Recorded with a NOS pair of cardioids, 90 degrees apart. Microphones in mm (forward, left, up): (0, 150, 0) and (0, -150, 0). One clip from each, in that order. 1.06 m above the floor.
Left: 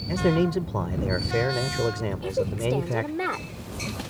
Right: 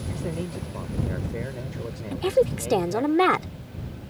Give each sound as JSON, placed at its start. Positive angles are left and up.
{"t": 0.1, "sound": "a man speaking", "azimuth_deg": 65}
{"t": 2.1, "sound": "a woman speaking", "azimuth_deg": -55}